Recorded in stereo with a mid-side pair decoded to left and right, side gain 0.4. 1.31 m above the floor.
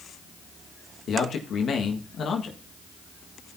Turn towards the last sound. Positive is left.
turn(degrees=60)